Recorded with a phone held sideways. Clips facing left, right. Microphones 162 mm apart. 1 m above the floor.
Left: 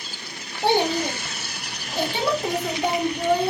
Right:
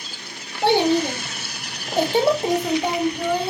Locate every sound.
0.6 s a child speaking: 80° right, 1.1 m; by 3.5 s 30° left (ahead or behind), 0.7 m